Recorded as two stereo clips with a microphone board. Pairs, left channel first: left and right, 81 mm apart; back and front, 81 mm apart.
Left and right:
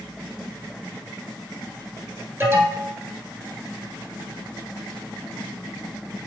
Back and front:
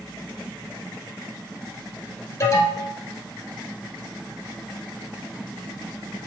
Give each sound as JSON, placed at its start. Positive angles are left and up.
{"t": 2.4, "sound": "an alarm", "azimuth_deg": -140, "distance_m": 1.4}